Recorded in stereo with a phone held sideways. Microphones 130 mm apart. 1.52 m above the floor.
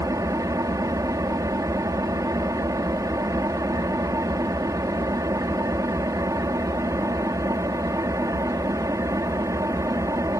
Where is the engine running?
25° right (ahead or behind).